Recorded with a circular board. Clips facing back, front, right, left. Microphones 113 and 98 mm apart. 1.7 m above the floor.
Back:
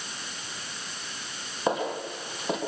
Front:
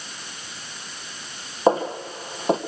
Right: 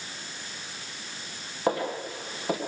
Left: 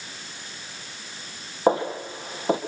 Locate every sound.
1.7 s footsteps: 40° left, 2.5 m